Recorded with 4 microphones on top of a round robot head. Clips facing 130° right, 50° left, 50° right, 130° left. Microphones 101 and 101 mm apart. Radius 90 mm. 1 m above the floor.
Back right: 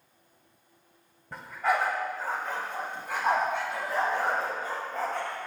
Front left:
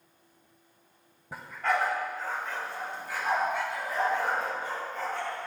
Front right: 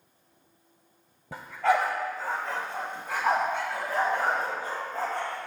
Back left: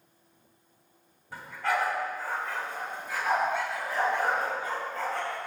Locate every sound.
1.3 s a dog barking: 35° right, 1.5 m; by 5.5 s 105° right, 5 m